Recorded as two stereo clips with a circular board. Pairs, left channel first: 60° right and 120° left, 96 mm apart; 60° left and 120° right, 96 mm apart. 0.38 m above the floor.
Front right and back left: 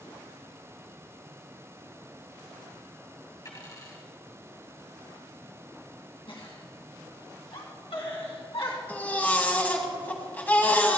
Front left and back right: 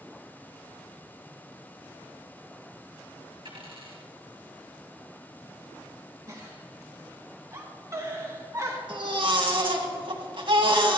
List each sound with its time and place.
3.5 s a dropped coin: 110° right, 3 m
6.3 s a giggle: 65° right, 2 m
8.9 s a baby crying: 130° right, 1.8 m